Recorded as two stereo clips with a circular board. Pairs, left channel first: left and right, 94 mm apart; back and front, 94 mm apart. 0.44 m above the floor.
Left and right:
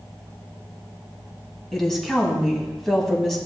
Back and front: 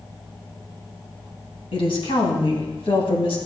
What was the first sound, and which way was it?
A woman speaking, 175° left.